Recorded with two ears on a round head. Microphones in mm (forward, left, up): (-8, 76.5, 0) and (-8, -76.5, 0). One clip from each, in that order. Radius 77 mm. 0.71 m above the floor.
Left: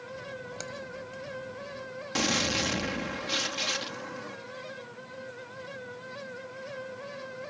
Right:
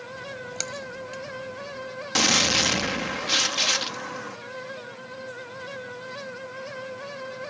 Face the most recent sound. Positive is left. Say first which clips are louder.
# right 7 dB
turn(degrees=-30)  # may be behind; listen again after turning